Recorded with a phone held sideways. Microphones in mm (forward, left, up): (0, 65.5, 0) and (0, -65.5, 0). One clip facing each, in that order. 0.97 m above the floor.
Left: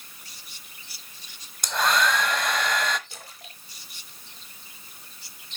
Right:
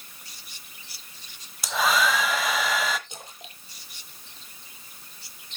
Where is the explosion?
No explosion in this recording.